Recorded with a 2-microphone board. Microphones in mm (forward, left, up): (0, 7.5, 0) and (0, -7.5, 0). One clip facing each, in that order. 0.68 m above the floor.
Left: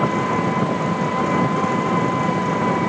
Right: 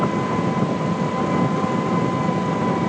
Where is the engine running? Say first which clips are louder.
Left 2 dB; 30° left (ahead or behind).